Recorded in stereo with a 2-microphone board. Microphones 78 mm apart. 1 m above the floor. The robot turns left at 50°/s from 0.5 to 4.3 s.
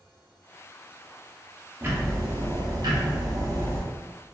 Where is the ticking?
35° right, 0.6 m; by 3.8 s 135° right, 0.6 m.